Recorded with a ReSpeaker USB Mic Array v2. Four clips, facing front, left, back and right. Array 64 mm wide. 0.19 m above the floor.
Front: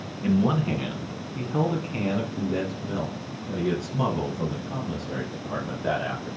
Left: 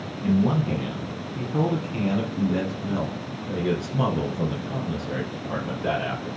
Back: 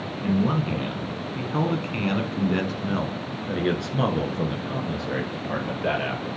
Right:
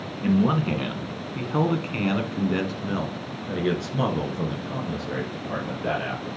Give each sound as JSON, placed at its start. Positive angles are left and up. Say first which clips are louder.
{"t": 0.2, "sound": "a man speaking", "louder": "right 1 dB, front 1 dB", "azimuth_deg": -80, "distance_m": 1.8}